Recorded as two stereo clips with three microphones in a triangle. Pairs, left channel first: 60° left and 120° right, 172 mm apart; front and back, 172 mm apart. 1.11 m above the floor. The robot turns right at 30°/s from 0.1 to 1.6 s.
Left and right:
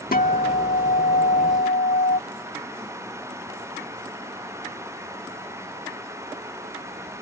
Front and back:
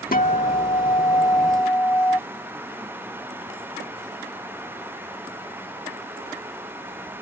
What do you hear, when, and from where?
0.1 s a guitar: 30° left; by 2.2 s 75° left